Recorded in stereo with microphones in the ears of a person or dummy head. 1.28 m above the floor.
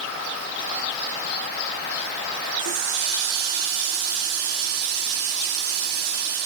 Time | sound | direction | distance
2.6 | a running tap | 65° right (ahead or behind) | 1.8 m